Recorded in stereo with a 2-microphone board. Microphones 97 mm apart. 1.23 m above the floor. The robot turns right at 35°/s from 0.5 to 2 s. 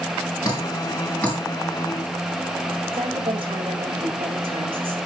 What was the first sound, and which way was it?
Dripping, 40° left (ahead or behind).